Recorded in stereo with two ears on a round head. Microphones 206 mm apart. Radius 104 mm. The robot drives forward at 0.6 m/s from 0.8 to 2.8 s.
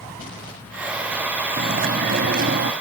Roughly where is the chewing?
Right.